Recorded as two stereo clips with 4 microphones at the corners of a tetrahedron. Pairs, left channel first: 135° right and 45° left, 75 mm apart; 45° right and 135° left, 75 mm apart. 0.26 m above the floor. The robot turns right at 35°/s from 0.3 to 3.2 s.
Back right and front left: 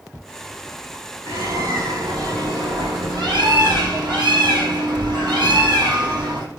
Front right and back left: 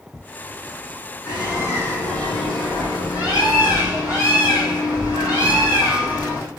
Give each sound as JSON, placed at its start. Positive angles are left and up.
{"t": 1.2, "sound": "a bird", "azimuth_deg": 0, "distance_m": 4.5}